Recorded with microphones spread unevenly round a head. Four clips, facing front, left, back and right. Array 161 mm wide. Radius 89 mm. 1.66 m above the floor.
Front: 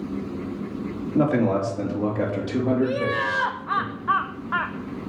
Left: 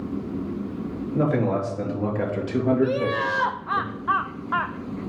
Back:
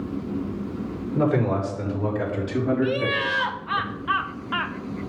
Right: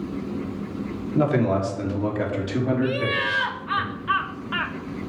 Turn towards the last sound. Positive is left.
turn(degrees=45)